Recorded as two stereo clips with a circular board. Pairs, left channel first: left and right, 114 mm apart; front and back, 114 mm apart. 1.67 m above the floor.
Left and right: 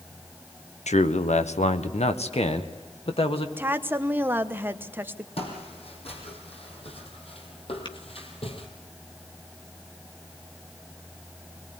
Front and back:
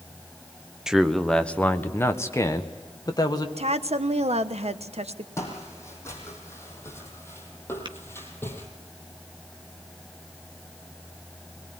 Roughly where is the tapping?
Behind left.